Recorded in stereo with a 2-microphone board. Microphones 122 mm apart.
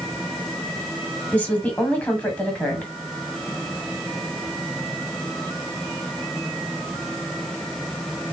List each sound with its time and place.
1.3 s a woman speaking: 15° left (ahead or behind), 1.2 m